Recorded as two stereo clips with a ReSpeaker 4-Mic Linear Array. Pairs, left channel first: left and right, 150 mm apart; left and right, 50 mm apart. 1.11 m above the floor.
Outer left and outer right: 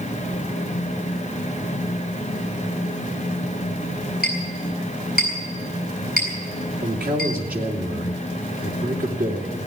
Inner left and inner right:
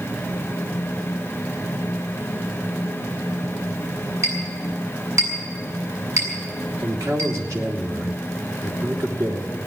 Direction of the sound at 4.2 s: 75° right (ahead or behind).